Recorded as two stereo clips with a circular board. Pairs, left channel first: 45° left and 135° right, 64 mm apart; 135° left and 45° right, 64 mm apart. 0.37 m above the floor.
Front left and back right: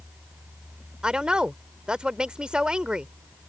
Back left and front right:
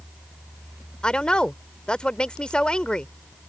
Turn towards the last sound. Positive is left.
turn(degrees=180)